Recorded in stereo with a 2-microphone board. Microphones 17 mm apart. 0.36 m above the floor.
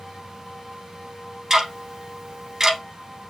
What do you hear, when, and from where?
1.5 s ticking: 35° right (ahead or behind), 0.6 m